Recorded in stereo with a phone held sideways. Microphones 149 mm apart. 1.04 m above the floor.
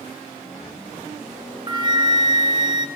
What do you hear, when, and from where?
1.7 s a flute: 30° right (ahead or behind), 1.4 m